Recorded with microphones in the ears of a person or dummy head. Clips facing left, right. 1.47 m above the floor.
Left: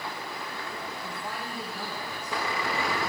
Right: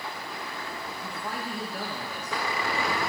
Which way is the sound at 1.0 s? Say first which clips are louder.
Right 2 dB; 85° right.